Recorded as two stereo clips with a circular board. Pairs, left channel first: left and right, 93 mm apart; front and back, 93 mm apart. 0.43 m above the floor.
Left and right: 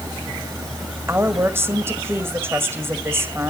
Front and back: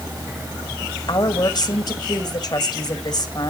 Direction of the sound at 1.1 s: 30° right.